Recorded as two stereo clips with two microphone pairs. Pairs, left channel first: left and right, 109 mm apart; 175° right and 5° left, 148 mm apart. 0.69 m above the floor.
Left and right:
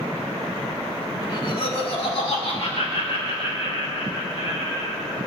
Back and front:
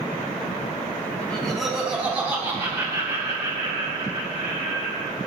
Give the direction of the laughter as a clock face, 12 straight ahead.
8 o'clock.